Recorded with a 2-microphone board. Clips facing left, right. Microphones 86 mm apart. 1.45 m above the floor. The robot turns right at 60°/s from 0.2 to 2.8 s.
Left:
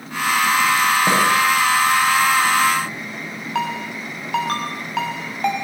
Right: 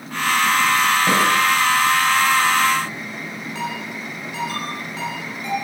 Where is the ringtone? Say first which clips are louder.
Left 6 dB; 75° left (ahead or behind), 5.5 m.